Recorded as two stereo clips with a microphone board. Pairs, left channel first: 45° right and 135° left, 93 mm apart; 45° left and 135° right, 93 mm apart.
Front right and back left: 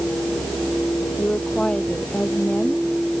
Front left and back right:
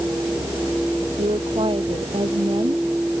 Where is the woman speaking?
125° right.